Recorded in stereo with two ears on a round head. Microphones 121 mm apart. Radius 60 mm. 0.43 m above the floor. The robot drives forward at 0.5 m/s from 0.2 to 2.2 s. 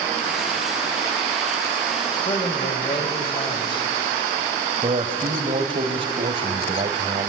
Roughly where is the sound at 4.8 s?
Right.